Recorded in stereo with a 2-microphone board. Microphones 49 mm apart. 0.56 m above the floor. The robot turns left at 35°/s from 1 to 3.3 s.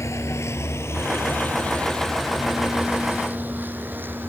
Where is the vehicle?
80° left; by 4.3 s 40° right (ahead or behind).